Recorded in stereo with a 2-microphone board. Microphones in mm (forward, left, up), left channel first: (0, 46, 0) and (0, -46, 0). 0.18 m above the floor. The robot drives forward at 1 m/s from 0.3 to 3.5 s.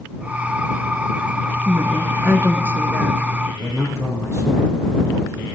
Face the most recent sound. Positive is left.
turn(degrees=-30)  # may be behind; listen again after turning